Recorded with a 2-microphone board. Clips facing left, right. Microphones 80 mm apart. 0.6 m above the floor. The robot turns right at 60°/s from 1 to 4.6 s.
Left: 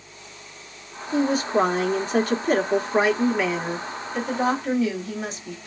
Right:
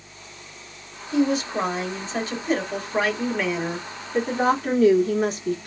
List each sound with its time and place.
1.1 s a woman speaking: 40° left, 1.2 m; by 5.7 s 110° right, 1.2 m